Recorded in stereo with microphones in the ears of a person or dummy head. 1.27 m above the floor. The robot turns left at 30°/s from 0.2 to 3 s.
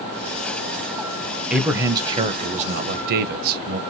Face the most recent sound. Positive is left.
turn(degrees=-45)